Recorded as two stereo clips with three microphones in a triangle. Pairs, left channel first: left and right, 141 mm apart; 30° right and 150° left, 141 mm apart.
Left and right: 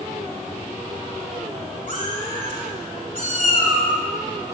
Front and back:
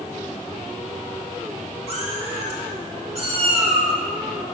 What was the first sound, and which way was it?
A cat meowing, 110° left.